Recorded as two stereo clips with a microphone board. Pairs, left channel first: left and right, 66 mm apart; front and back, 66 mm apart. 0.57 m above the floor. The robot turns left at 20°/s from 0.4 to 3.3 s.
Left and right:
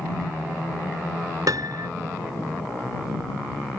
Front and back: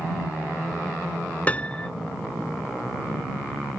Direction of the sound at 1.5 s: 65° right.